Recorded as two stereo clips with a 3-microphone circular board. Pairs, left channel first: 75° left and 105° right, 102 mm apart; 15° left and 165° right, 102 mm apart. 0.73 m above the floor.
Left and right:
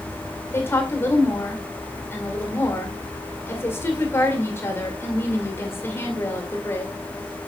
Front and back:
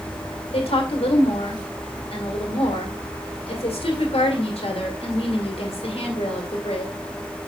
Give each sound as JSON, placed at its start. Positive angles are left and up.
{"t": 0.5, "sound": "a woman speaking", "azimuth_deg": 10, "distance_m": 2.0}